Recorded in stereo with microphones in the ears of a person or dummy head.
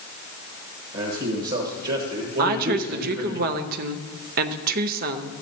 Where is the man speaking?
45° right (ahead or behind), 1.4 m.